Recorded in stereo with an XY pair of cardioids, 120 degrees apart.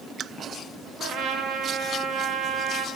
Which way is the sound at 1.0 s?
60° right.